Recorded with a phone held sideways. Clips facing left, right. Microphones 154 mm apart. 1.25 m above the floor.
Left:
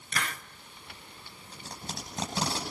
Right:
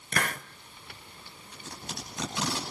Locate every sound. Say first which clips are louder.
0.1 s a hiss: right 4 dB; 50° right (ahead or behind), 0.9 m
1.5 s tape being pulled: even; 30° left (ahead or behind), 9.5 m